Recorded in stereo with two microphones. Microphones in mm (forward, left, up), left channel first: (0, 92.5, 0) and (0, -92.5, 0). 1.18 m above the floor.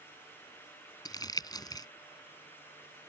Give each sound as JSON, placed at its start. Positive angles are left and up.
{"t": 1.1, "sound": "crumpling", "side_deg": 20}